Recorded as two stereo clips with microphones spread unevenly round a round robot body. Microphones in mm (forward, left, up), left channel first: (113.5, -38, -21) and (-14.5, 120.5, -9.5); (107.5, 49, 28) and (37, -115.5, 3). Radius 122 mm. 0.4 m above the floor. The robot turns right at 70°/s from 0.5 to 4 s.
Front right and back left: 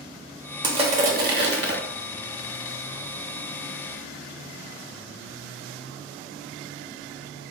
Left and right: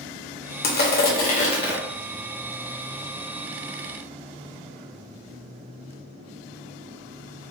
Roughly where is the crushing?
Ahead left.